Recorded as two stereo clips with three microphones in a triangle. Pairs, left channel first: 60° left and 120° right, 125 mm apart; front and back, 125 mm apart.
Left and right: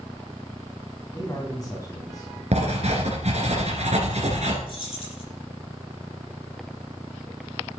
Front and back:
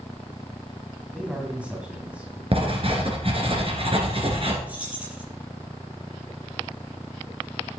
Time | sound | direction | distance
1.1 | a man speaking | 105° left | 2.0 m
2.5 | writing | 140° right | 2.5 m
4.7 | keys jangling | 100° left | 5.5 m